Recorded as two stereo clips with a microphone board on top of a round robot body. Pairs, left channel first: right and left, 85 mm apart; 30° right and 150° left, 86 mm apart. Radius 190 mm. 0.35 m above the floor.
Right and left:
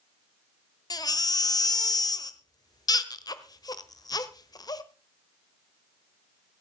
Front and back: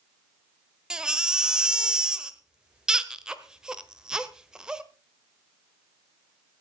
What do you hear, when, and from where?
0.9 s a baby crying: 130° right, 1.2 m